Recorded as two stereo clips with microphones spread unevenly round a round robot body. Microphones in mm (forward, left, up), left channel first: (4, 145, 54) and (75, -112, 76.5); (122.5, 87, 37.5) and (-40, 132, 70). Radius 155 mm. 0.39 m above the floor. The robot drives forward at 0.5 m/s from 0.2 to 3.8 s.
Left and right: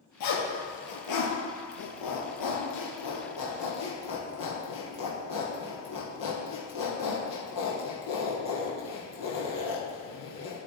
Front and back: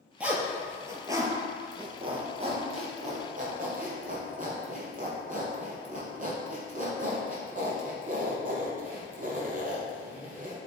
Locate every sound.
0.2 s a zipper: 85° left, 2 m; by 10.6 s 125° left, 2.5 m